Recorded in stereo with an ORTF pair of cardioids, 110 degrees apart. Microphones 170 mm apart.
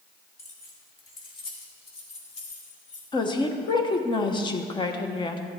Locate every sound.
0.4 s keys jangling: 15° left, 2.5 m; by 3.0 s 45° left, 4 m
3.1 s a woman speaking: 30° left, 1.2 m